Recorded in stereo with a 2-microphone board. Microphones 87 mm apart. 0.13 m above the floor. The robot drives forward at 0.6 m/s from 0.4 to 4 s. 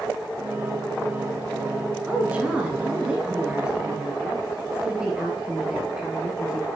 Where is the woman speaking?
15° right (ahead or behind), 1.2 m; by 6.7 s 10° right (ahead or behind), 1.9 m.